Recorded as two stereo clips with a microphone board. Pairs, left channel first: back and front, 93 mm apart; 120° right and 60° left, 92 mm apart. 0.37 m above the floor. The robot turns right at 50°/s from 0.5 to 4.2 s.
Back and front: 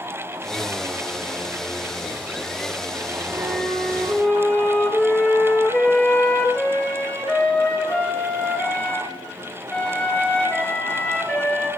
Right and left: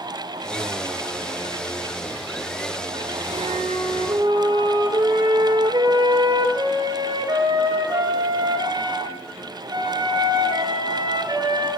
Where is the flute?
60° left, 4 m; by 11.7 s 105° left, 4 m.